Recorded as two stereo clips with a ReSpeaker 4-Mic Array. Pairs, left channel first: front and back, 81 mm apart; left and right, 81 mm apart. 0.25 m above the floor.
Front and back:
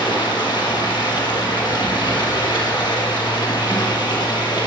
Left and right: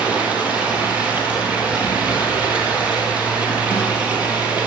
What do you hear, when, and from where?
0.0 s running water: 15° right, 4 m